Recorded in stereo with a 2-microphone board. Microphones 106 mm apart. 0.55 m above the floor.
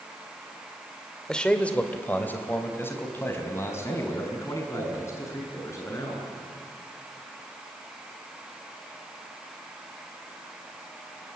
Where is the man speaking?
5° left (ahead or behind), 1.9 m; by 6.2 s 30° left (ahead or behind), 7.5 m.